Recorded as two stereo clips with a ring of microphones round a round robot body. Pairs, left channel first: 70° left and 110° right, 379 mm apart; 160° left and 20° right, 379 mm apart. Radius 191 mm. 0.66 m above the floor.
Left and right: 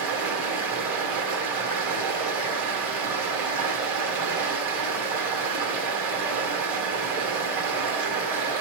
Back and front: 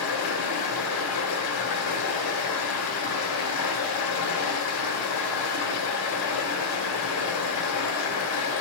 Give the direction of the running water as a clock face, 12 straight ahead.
5 o'clock.